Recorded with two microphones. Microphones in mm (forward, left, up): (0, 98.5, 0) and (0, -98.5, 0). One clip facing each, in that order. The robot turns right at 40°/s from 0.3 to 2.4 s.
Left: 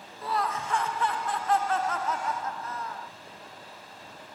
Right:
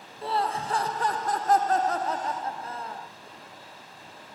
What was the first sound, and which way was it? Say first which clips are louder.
Laughter: right 2 dB; 135° right.